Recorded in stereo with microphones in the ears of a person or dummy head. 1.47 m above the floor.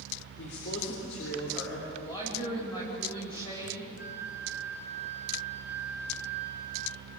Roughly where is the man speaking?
Left.